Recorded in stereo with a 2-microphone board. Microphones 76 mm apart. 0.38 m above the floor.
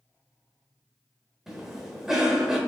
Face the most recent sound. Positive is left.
turn(degrees=-5)  # may be behind; listen again after turning